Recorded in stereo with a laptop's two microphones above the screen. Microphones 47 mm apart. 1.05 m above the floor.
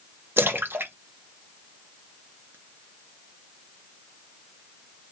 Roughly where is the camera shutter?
I don't hear a camera shutter.